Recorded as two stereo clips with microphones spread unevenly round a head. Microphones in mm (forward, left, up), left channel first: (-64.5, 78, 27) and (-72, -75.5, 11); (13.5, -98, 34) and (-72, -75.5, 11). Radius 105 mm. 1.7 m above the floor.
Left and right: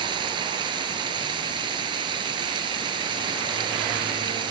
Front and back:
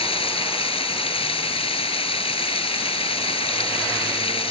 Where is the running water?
20° right.